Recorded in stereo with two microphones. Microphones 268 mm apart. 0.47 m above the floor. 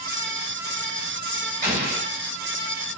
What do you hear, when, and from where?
1.6 s an explosion: 45° right (ahead or behind), 1.5 m